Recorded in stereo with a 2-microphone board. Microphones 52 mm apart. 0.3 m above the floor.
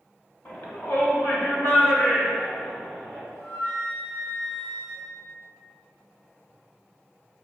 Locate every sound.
0.5 s a shout: 40° left (ahead or behind), 1.8 m; by 3.2 s 60° left (ahead or behind), 3.5 m
3.3 s a flute: 40° left (ahead or behind), 1.8 m